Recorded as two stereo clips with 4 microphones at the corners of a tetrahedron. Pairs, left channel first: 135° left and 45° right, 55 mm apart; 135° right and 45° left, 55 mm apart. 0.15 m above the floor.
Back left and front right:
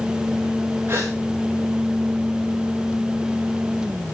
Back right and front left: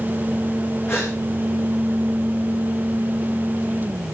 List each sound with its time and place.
0.9 s a gasp: 90° right, 9 m